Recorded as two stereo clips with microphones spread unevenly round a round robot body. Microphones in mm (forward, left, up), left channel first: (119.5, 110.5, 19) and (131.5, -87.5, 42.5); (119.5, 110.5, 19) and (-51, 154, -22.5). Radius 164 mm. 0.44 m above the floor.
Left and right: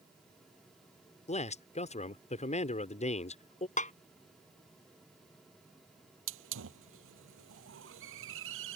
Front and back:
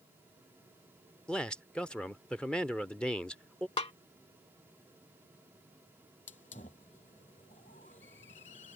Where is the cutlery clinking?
I don't hear cutlery clinking.